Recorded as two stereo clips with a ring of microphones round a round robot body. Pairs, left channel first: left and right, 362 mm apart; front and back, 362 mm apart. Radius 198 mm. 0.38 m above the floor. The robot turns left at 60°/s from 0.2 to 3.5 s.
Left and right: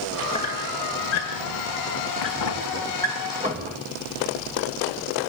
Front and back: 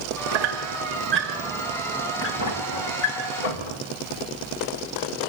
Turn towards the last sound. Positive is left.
turn(degrees=-20)